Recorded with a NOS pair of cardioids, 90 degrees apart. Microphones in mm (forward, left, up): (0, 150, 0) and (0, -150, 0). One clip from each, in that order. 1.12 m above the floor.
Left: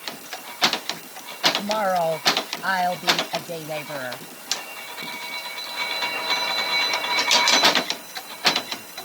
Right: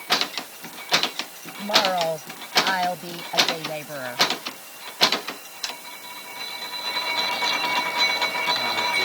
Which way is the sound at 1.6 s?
15° left.